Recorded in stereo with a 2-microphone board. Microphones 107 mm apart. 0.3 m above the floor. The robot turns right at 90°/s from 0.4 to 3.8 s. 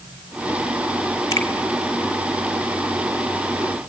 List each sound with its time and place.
1.3 s a finger snap: 35° left (ahead or behind), 1.9 m; by 1.5 s 25° left (ahead or behind), 1.9 m